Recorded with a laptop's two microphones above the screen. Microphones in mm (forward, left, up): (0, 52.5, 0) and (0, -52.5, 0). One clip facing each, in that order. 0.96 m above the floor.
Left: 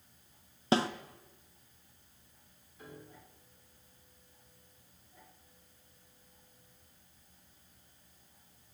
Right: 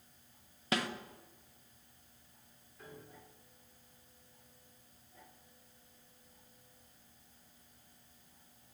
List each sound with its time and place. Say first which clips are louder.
0.7 s a snare drum: left 7 dB; 30° left (ahead or behind), 0.6 m
2.8 s a piano: left 2 dB; 5° left (ahead or behind), 7 m